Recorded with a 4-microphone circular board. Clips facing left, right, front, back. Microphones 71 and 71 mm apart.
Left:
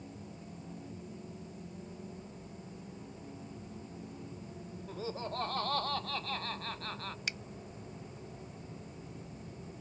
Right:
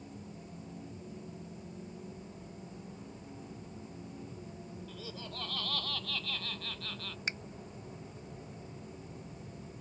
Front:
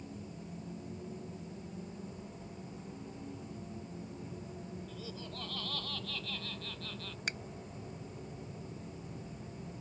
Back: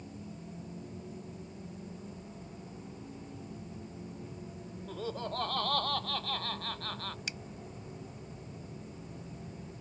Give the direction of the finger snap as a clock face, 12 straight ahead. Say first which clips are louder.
Right 4 dB, front 3 dB; 1 o'clock.